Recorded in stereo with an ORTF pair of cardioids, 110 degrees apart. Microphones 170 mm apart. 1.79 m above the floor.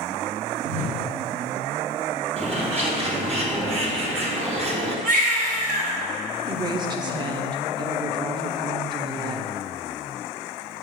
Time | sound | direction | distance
0.6 | a whoosh | 45° right | 1.5 m
2.4 | a bird | 35° right | 1.6 m
5.0 | a baby crying | 55° right | 1.8 m
6.5 | a woman speaking | 25° right | 1.1 m